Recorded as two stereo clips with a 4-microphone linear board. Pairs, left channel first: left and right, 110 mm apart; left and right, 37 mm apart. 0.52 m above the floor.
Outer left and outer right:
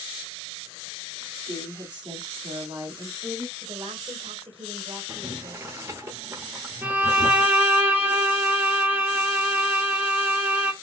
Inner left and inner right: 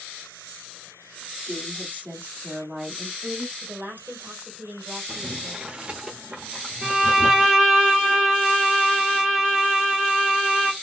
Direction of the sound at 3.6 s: 60° right (ahead or behind).